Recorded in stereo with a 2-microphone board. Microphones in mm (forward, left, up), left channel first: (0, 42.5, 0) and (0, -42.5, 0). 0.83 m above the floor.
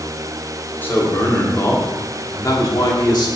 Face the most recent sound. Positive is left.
turn(degrees=60)  # may be behind; listen again after turning